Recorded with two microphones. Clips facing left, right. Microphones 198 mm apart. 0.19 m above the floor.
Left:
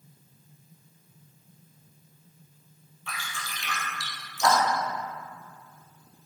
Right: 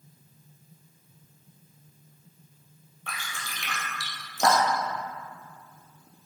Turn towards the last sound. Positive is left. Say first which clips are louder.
# even
turn(degrees=-60)  # may be behind; listen again after turning